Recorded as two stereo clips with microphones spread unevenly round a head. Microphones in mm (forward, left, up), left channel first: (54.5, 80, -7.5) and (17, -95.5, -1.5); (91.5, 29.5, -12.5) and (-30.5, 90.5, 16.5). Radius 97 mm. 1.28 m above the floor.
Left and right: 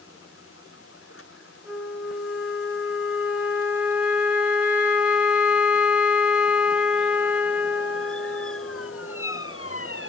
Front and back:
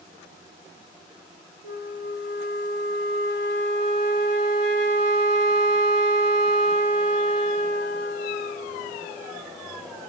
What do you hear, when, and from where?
1.6 s a flute: 175° left, 0.9 m